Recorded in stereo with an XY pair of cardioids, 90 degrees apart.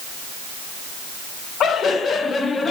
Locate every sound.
1.6 s laughter: 70° left, 1.8 m; by 2.7 s 40° left, 2.5 m